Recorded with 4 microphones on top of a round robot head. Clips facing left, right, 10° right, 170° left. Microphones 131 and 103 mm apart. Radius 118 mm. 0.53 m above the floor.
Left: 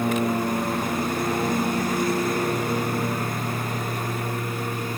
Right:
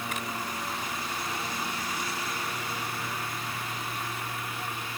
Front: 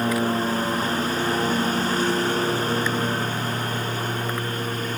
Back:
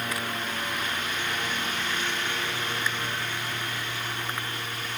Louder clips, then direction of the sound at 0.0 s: Left 12 dB, front 10 dB; 45° left.